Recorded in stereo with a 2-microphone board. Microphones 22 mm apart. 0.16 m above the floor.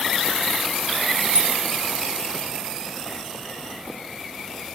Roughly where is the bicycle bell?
Right.